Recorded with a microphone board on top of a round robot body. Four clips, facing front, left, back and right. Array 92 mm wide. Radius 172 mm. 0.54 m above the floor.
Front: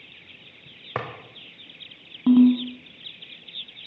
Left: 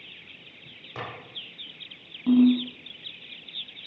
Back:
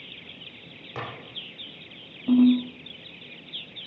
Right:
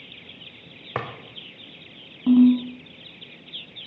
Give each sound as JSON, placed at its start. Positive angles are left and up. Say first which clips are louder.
{"t": 0.9, "sound": "a drawer", "louder": "right 7 dB, front 5 dB", "azimuth_deg": -45, "distance_m": 1.0}
{"t": 2.3, "sound": "a ringtone", "louder": "right 3 dB, front 3 dB", "azimuth_deg": -15, "distance_m": 2.0}